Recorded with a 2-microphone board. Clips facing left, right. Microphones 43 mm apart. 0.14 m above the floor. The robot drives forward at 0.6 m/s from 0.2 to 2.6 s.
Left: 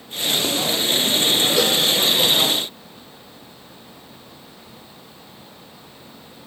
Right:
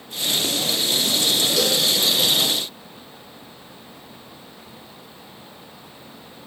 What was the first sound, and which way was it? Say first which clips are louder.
A cowbell: left 2 dB; 30° left (ahead or behind).